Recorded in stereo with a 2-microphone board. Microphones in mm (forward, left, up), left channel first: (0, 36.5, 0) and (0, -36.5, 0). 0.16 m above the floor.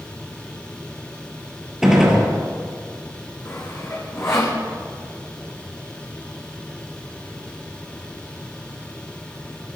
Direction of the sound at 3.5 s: 35° left (ahead or behind).